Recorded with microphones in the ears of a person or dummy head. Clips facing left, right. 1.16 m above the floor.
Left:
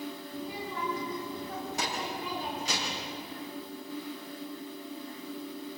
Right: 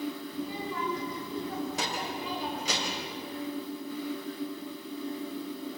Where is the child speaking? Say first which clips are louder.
Right 3 dB; 70° right (ahead or behind), 5.5 m; by 3.1 s 75° right (ahead or behind), 3.5 m.